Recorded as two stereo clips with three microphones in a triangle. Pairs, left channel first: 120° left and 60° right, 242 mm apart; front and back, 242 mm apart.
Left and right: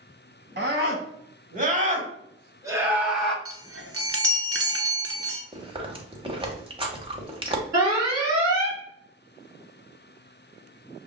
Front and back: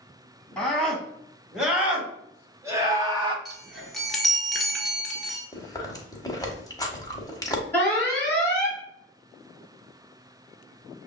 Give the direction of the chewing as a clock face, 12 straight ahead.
2 o'clock.